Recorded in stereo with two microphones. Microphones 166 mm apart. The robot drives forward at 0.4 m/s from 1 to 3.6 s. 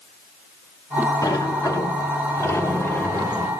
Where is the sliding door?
20° left (ahead or behind), 1.0 m; by 3.5 s 10° left (ahead or behind), 1.7 m.